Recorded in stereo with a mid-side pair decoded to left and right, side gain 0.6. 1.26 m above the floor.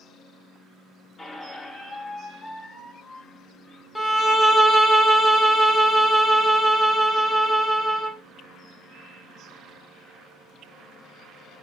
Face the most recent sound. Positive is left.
turn(degrees=5)